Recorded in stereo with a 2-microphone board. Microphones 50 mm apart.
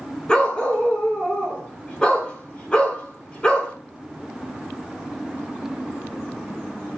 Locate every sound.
0.3 s a dog barking: 15° left (ahead or behind), 7 m